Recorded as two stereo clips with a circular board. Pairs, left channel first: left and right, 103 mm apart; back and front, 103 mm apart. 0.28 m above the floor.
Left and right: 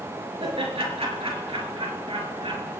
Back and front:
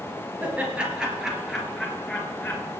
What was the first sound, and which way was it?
Laughter, 75° right.